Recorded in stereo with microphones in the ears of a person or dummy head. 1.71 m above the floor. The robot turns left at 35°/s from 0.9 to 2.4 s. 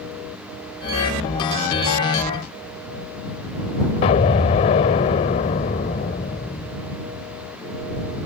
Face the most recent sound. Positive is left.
turn(degrees=30)  # may be behind; listen again after turning